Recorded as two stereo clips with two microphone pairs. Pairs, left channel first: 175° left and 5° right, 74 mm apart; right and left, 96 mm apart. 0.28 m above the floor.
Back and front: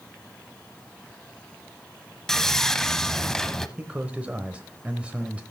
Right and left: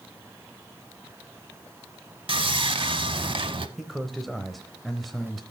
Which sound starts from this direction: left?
Sawing, at 2.3 s.